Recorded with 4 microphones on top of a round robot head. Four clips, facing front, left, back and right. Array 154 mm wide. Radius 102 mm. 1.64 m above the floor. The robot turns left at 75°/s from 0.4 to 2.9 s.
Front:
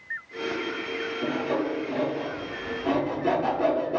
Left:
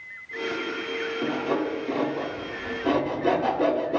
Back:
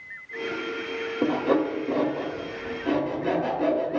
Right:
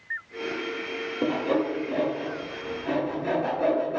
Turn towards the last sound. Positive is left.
turn(degrees=80)